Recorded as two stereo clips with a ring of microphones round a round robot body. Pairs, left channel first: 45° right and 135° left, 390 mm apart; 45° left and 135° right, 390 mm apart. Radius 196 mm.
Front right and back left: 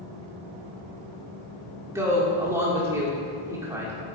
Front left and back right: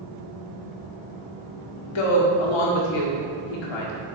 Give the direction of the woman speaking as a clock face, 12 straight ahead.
10 o'clock.